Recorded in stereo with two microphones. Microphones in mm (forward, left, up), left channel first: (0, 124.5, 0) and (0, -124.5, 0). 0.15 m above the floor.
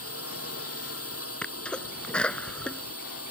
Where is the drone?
70° left (ahead or behind).